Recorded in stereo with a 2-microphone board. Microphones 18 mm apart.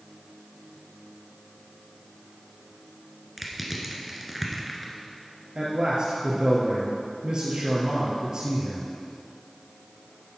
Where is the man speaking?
50° right (ahead or behind), 2 m.